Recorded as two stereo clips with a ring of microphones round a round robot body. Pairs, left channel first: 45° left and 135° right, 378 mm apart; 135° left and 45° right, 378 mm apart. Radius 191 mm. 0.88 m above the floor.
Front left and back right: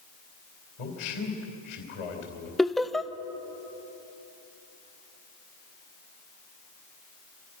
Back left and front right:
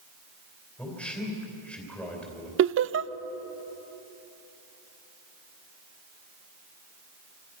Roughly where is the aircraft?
No aircraft in this recording.